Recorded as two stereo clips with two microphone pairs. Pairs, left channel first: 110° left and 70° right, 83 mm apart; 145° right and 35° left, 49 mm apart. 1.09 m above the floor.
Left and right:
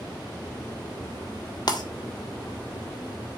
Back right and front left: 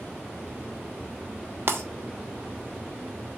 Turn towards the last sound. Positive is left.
turn(degrees=75)